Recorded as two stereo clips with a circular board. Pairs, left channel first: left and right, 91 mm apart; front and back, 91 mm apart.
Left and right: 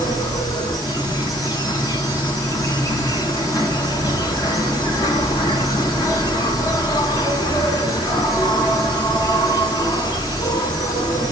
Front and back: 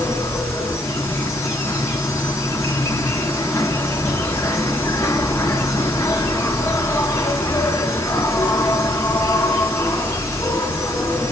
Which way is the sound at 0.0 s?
55° left.